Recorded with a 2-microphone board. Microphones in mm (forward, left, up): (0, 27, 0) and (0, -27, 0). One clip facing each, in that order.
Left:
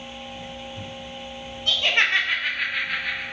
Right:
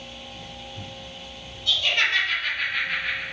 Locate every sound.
1.7 s laughter: 40° left (ahead or behind), 0.5 m; by 3.2 s 5° right (ahead or behind), 0.7 m